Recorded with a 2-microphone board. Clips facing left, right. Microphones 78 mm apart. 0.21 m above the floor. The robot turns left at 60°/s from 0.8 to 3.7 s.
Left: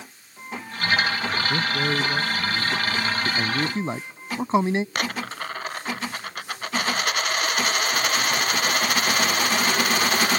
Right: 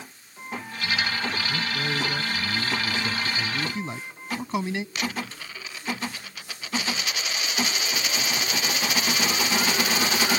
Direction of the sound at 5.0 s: 55° left (ahead or behind).